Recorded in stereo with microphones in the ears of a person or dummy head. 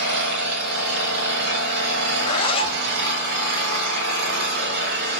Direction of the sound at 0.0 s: 65° right (ahead or behind).